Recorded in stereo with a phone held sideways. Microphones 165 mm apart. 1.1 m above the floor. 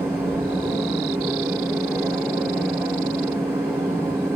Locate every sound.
0.0 s a machine running: 15° right (ahead or behind), 0.9 m